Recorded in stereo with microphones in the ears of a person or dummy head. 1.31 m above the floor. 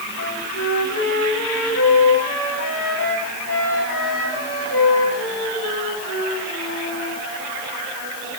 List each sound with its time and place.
0.2 s a flute: 65° left (ahead or behind), 8 m